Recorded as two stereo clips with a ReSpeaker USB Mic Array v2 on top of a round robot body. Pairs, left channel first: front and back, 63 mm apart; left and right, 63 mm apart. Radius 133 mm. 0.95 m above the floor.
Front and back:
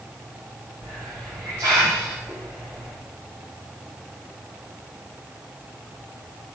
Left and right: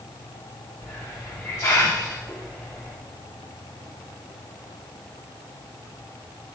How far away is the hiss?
About 0.5 m.